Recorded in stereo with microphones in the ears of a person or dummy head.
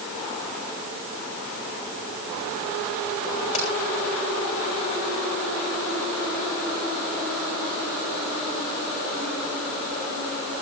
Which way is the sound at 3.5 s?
30° left (ahead or behind).